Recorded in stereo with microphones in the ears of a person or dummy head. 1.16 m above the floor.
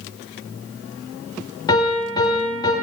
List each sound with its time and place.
1.7 s a piano: 25° left (ahead or behind), 4.5 m